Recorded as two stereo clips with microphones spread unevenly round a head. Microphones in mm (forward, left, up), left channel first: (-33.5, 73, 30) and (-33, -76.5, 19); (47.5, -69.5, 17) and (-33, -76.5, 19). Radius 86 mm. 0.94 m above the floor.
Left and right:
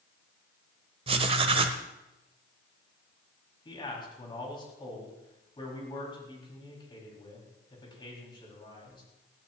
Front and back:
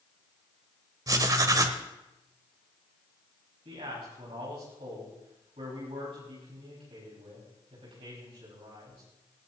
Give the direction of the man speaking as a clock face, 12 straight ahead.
7 o'clock.